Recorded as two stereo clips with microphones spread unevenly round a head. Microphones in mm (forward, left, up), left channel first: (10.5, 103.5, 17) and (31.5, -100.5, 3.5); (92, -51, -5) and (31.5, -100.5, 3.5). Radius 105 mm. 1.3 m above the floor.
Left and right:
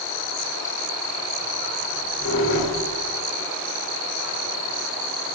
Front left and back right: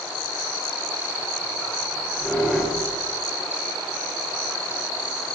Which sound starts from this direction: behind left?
A squeak, at 1.9 s.